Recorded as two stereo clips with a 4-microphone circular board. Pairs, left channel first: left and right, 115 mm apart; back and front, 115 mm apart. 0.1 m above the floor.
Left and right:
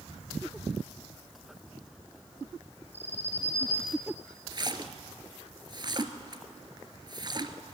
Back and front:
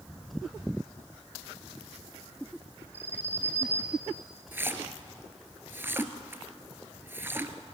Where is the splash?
65° right, 1.1 m.